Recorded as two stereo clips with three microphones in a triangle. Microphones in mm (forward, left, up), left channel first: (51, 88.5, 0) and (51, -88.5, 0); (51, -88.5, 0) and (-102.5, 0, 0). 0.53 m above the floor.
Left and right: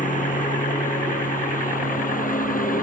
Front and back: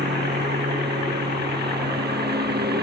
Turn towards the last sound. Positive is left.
turn(degrees=130)